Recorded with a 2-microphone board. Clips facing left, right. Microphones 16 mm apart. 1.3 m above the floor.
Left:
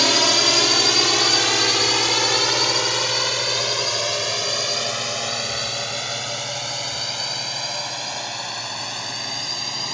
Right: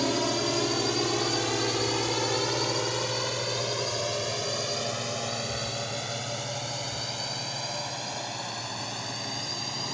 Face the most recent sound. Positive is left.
turn(degrees=30)  # may be behind; listen again after turning